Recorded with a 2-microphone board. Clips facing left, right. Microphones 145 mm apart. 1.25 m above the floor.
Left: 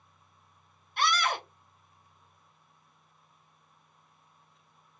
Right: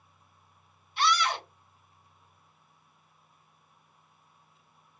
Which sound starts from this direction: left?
A scream, at 1.0 s.